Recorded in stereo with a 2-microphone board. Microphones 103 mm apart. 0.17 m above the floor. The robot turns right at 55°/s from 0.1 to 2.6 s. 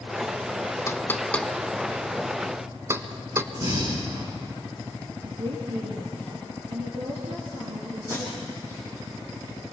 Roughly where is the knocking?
Left.